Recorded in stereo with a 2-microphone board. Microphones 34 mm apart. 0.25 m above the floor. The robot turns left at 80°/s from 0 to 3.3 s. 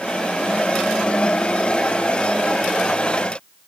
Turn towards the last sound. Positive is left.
No sound to turn to.